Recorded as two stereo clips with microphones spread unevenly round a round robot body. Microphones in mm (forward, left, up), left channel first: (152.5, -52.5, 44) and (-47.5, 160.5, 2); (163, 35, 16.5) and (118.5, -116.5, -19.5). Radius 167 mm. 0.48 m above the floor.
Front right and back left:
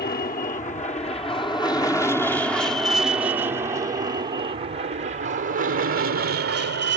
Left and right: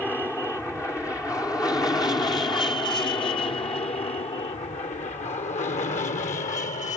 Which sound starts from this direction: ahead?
An aircraft, at 0.0 s.